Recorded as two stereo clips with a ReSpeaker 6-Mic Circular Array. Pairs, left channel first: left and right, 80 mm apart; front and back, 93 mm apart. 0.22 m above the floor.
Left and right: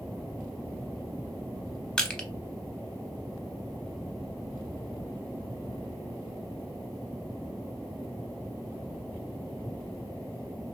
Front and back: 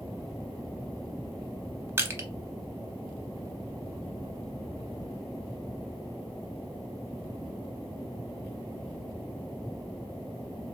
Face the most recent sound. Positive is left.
turn(degrees=155)